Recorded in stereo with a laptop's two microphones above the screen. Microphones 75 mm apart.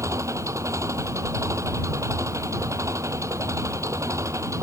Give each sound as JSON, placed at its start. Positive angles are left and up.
{"t": 0.0, "sound": "an engine running", "side_deg": -45}